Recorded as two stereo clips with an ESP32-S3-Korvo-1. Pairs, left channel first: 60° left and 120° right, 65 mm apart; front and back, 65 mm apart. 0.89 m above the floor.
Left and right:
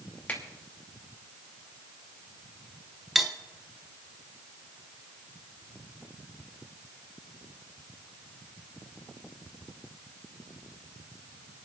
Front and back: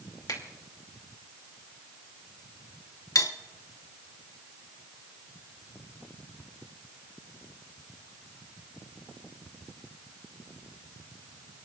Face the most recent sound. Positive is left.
turn(degrees=-35)